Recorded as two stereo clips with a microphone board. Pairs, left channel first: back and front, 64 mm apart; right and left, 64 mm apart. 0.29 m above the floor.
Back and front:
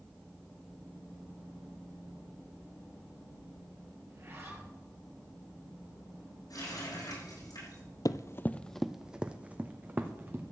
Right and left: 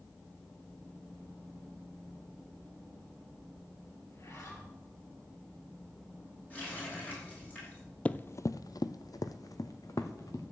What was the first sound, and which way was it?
A zipper, 50° right.